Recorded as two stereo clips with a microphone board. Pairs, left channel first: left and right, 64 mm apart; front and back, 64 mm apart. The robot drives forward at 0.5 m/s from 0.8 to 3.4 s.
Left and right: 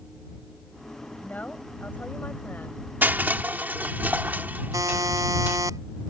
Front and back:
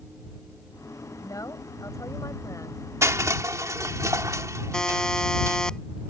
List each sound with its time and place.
1.2 s a woman speaking: 25° left; by 2.8 s 30° left
3.0 s crushing: 145° right; by 5.6 s 150° right
4.7 s a buzzer: 75° right